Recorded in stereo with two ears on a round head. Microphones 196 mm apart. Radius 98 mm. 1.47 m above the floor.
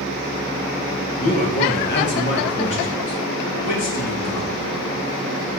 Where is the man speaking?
35° left (ahead or behind), 1.9 m; by 4.5 s 85° left, 2.5 m.